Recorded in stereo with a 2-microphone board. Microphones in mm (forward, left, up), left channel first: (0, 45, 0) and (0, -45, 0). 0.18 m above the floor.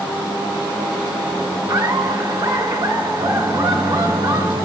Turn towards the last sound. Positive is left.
turn(degrees=-50)  # may be behind; listen again after turning